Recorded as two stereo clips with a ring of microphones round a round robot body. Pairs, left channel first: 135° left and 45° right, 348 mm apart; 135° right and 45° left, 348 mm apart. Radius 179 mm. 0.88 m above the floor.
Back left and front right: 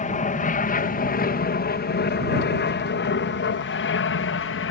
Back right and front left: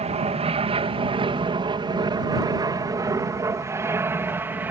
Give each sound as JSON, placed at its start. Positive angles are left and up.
{"t": 0.0, "sound": "an aircraft", "azimuth_deg": 95}